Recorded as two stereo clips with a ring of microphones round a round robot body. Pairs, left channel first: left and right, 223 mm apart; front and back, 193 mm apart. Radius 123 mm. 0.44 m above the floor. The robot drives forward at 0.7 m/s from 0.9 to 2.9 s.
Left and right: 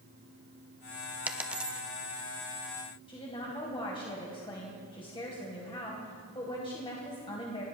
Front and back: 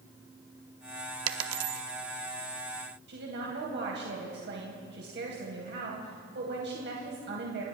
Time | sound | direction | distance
1.3 | a dropped coin | 175° right | 0.7 m
3.1 | a woman speaking | 160° left | 2.5 m